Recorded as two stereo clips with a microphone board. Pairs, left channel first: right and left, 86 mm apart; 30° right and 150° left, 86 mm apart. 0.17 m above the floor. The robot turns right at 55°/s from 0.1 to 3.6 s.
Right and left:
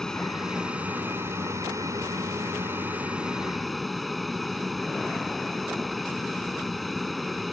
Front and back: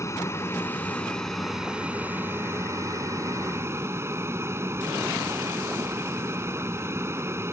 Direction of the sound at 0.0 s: 15° right.